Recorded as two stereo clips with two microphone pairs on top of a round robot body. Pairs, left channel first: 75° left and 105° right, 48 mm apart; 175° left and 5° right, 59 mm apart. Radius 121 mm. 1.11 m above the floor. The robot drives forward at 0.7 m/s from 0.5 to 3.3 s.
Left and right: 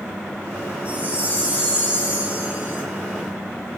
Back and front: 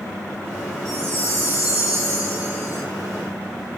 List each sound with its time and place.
0.8 s a chime: 35° right, 9 m; by 2.8 s 45° right, 8 m